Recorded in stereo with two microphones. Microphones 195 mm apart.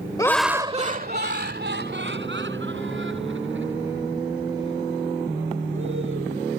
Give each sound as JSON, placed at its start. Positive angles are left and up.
{"t": 0.2, "sound": "laughter", "side_deg": 20}